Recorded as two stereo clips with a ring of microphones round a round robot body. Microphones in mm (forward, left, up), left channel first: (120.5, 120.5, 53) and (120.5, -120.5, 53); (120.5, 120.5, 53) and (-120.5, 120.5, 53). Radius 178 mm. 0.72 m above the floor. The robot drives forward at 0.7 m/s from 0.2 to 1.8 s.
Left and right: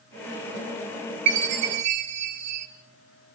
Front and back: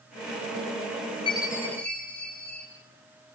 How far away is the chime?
About 2 m.